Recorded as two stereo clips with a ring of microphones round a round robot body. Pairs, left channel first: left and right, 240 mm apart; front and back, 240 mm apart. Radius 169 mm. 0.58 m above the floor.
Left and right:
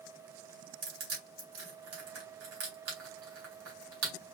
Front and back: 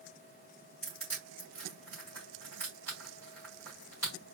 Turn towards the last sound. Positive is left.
turn(degrees=-85)